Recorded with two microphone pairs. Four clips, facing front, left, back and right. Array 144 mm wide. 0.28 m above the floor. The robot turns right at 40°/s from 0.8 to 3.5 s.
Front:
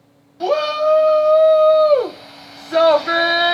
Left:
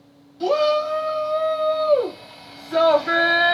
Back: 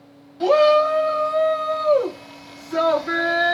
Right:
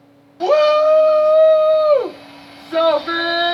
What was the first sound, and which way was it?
A shout, 85° right.